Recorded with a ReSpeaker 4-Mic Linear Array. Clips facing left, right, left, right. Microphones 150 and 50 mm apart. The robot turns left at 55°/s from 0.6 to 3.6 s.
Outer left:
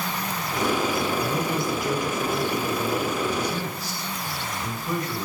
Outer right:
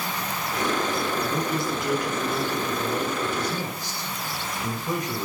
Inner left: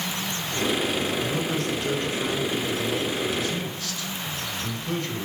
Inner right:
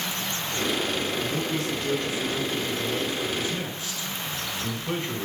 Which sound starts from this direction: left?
A man speaking, at 1.2 s.